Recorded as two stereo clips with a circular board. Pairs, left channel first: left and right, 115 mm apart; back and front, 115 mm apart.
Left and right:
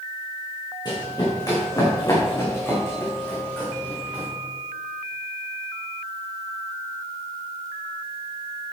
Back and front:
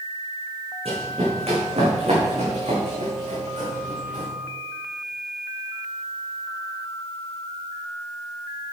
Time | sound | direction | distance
0.8 | running footsteps | 35° left | 5.5 m